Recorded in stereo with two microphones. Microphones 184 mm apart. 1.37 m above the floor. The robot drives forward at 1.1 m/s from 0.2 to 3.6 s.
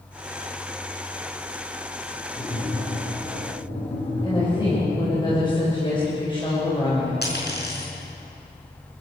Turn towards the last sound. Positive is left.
turn(degrees=65)  # may be behind; listen again after turning